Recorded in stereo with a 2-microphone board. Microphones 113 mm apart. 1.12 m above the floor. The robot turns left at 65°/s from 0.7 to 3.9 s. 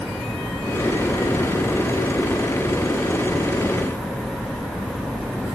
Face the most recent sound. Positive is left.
turn(degrees=-25)